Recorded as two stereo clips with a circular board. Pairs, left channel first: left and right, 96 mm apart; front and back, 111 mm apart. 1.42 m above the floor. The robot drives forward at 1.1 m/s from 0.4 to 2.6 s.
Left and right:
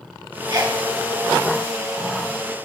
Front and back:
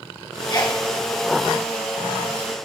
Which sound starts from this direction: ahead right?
A sneeze, at 0.5 s.